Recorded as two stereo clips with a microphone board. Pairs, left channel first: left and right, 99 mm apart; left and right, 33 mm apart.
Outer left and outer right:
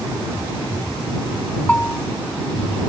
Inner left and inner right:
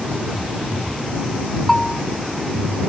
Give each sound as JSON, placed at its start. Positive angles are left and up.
{"t": 1.7, "sound": "a bell", "side_deg": 15}